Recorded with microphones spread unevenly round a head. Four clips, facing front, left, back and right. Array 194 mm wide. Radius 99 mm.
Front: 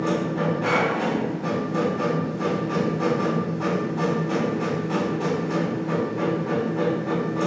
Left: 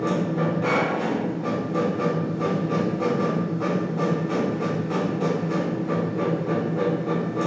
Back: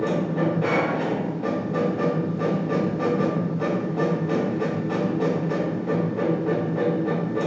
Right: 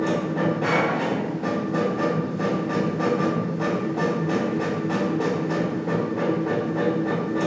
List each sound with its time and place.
0.0 s a machine running: 95° right, 1.9 m